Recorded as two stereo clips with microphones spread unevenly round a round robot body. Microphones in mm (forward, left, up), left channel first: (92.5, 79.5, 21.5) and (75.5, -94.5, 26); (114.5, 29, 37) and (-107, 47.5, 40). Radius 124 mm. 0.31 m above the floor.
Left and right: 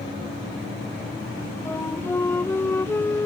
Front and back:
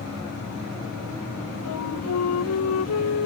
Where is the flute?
10° left.